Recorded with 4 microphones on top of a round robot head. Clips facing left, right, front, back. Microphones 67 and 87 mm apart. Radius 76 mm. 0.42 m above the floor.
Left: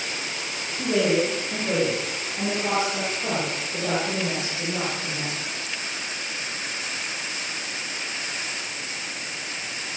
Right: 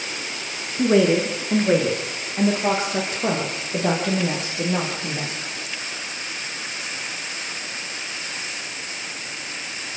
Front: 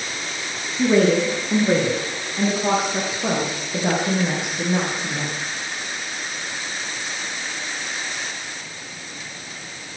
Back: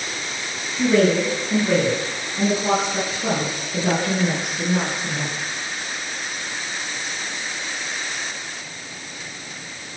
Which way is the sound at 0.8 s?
75° right.